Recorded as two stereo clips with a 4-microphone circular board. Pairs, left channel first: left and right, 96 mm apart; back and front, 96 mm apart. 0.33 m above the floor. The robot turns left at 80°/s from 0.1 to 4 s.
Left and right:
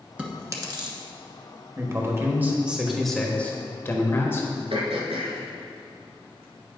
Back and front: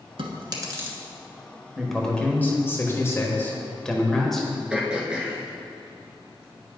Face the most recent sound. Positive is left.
turn(degrees=-80)